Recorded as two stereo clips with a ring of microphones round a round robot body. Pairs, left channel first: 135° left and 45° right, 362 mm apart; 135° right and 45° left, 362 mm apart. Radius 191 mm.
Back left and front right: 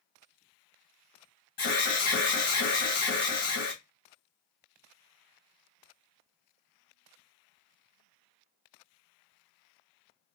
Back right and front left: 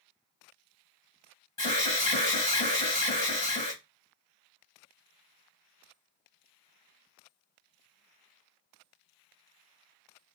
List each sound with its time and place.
1.6 s an alarm: 150° left, 1.8 m